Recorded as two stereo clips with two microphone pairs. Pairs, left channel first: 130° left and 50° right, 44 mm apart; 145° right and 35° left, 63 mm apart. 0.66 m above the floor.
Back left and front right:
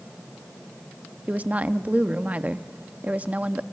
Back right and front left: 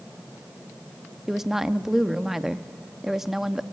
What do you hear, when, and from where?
1.3 s a woman speaking: 35° right, 0.5 m